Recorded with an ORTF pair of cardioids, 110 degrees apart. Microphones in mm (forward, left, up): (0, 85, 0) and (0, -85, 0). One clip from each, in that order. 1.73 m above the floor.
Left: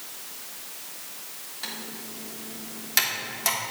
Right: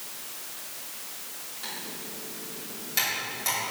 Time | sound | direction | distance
1.6 | typing on a keyboard | 45° left | 3 m